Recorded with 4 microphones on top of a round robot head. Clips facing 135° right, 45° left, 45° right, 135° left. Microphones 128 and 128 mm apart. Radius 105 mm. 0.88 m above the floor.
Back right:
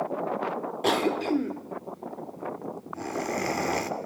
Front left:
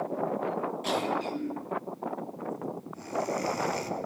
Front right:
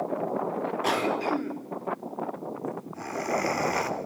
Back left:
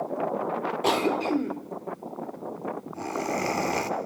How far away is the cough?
About 3.5 m.